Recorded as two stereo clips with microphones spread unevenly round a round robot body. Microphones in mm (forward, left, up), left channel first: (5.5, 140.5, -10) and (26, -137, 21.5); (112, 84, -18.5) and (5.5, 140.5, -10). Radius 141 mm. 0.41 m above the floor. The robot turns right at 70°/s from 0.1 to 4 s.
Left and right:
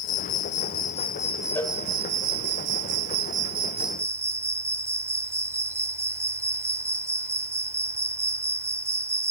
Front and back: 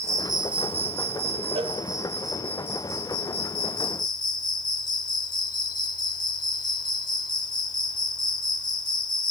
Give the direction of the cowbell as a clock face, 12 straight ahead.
7 o'clock.